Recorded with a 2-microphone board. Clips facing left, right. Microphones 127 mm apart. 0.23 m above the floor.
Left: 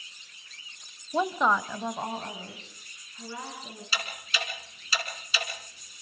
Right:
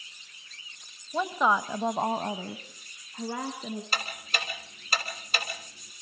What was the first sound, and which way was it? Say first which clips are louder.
A woman speaking: even; 15° left (ahead or behind).